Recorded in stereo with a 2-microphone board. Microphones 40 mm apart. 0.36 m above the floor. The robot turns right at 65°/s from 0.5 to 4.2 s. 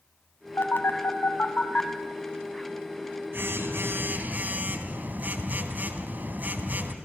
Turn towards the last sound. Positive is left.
turn(degrees=-50)